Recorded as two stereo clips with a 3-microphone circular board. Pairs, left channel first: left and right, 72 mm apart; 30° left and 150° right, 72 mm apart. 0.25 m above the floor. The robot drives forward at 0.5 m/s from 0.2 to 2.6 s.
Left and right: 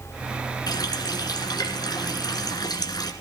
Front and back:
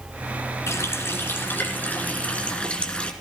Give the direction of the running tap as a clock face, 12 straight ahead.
9 o'clock.